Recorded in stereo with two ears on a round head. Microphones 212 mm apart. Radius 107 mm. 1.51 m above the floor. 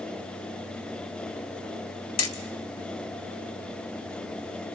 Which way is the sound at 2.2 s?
65° left (ahead or behind).